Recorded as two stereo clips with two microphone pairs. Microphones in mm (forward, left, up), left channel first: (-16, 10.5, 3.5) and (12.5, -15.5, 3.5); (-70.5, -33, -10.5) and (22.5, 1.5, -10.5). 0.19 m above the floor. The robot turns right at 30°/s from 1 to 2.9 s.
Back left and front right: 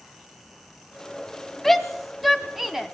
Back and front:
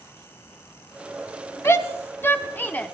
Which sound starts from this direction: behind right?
A shout, at 1.6 s.